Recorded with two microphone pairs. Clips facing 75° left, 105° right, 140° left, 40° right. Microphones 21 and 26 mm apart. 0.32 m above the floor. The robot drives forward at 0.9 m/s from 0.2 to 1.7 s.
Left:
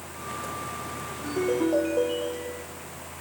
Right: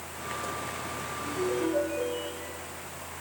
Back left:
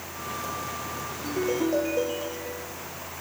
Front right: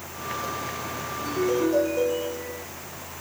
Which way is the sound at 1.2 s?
65° left.